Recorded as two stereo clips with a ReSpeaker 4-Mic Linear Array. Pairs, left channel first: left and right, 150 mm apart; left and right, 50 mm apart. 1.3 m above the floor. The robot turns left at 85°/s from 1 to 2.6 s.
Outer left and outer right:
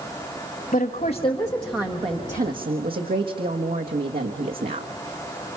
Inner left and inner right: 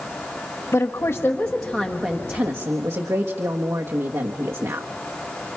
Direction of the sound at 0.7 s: 55° left.